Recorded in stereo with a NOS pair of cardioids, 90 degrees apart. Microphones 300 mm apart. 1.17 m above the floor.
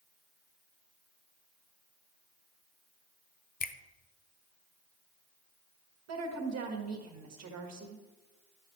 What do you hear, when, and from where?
3.6 s a finger snap: 30° left, 0.6 m
6.1 s a woman speaking: 60° right, 1.7 m